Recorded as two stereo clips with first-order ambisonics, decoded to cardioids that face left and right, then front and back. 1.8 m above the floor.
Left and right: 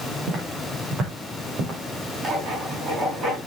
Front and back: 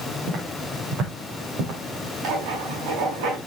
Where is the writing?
155° right, 6.5 m.